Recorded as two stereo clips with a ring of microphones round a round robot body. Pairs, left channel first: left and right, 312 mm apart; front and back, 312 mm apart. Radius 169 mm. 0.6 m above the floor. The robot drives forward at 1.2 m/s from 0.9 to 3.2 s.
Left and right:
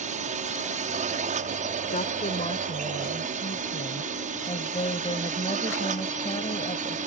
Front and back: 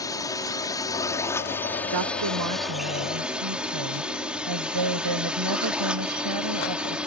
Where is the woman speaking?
155° left; by 7.1 s 165° left.